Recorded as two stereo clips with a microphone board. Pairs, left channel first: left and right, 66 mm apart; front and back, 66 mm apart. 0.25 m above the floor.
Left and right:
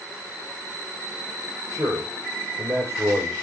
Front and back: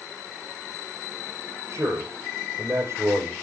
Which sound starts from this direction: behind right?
A man speaking, at 1.7 s.